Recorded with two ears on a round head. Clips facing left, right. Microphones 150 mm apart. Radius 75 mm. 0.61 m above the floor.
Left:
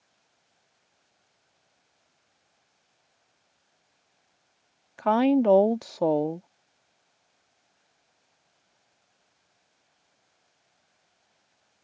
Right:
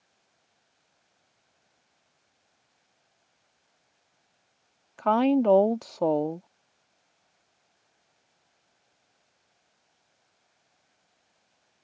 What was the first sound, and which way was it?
A woman speaking, 5° left (ahead or behind).